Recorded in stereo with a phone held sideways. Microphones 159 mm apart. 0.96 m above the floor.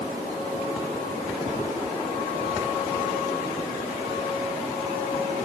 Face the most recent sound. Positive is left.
No sound to turn to.